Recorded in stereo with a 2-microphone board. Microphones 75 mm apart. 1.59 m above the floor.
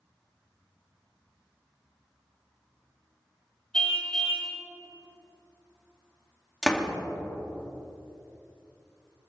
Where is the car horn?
10° left (ahead or behind), 3.5 m.